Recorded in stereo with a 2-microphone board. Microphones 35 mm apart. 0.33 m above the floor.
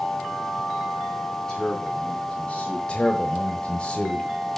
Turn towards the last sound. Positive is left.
turn(degrees=30)  # may be behind; listen again after turning